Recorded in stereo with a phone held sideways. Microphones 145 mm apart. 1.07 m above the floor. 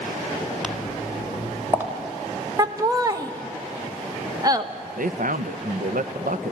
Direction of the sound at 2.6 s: 25° right (ahead or behind).